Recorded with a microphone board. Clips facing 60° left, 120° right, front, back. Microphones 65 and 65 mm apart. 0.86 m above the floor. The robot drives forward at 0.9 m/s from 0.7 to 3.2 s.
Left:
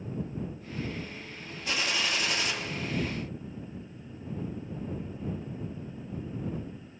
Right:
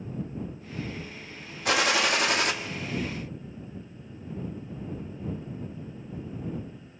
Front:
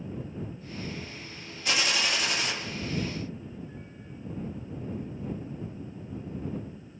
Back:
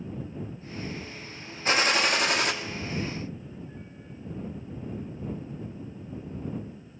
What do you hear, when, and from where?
1.6 s a gunshot: 130° right, 1.1 m; by 2.5 s 150° right, 1.7 m